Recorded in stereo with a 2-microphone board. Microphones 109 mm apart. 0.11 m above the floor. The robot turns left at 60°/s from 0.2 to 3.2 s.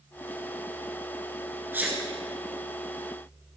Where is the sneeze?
20° right (ahead or behind), 1.4 m; by 2.0 s 10° right (ahead or behind), 1.4 m.